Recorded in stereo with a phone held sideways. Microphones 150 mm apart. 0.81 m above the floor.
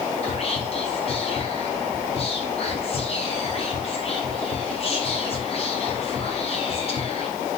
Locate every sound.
0.2 s whispering: 45° left (ahead or behind), 0.7 m